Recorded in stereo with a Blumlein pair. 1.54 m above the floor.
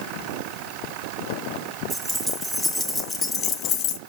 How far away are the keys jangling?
About 1.6 m.